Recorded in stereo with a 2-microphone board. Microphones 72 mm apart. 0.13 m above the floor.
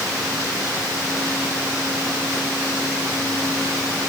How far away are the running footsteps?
I don't hear running footsteps.